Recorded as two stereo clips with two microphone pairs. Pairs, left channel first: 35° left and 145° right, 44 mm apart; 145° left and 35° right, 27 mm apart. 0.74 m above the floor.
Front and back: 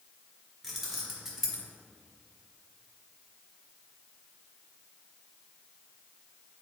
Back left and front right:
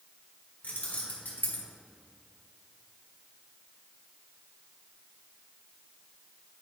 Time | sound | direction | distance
0.6 | keys jangling | 130° left | 1.7 m